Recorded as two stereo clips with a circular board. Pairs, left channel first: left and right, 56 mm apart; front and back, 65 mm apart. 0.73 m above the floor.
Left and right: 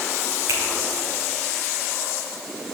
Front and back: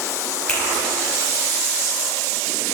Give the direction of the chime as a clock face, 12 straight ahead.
No chime in this recording.